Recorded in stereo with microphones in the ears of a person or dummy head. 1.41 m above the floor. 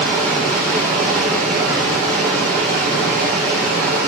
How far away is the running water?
About 3.5 m.